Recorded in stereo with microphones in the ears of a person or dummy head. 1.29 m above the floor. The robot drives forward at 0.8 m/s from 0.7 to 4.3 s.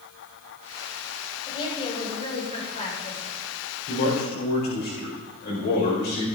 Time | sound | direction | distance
1.5 | a woman speaking | 30° left (ahead or behind) | 7 m
3.9 | a man speaking | 50° left (ahead or behind) | 4.5 m